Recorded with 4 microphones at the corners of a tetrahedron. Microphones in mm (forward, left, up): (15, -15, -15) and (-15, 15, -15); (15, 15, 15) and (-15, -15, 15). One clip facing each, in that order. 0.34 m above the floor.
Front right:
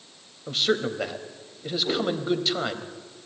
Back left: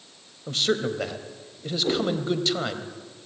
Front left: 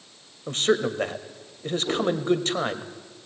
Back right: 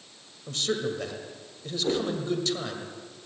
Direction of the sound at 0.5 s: 35° left.